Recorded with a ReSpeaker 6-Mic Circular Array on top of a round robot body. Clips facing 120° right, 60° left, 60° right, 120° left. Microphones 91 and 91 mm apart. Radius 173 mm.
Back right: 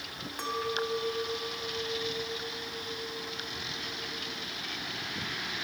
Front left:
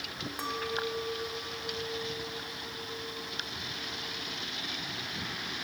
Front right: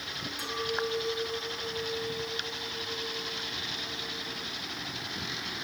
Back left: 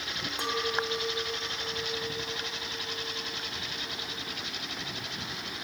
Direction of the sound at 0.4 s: 145° left.